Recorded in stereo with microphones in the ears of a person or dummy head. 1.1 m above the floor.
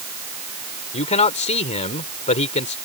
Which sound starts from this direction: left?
A man speaking, at 0.9 s.